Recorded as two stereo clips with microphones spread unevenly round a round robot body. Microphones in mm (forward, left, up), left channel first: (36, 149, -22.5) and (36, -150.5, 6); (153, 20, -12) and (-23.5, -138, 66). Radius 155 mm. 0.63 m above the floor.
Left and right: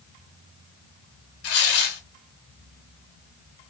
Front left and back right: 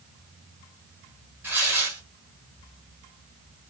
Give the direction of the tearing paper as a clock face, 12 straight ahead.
7 o'clock.